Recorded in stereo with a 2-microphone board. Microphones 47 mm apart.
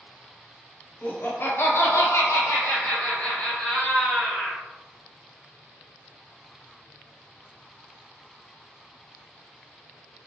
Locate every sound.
1.0 s laughter: 40° left (ahead or behind), 1.0 m; by 4.6 s 35° left (ahead or behind), 1.7 m